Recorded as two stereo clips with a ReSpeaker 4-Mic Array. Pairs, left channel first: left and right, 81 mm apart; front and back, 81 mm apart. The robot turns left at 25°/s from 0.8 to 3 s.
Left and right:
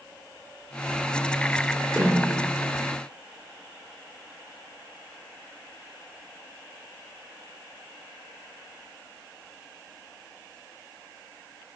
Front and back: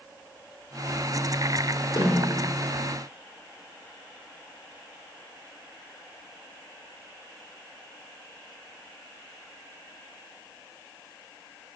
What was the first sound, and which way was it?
A snare drum, 15° right.